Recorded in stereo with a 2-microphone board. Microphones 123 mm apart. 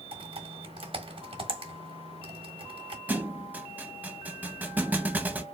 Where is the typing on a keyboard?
45° right (ahead or behind), 1.2 m.